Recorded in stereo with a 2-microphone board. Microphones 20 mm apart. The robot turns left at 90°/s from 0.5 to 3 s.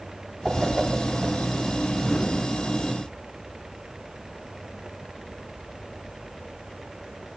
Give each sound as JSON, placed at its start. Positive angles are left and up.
{"t": 0.5, "sound": "a whoosh", "side_deg": -50, "distance_m": 7.5}